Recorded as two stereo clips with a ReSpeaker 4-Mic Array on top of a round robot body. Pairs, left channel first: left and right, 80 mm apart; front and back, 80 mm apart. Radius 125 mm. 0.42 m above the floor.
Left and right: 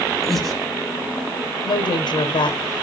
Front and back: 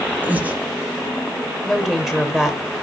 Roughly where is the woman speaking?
Left.